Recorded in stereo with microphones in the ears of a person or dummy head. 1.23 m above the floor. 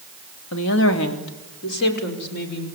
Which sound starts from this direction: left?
A woman speaking, at 0.5 s.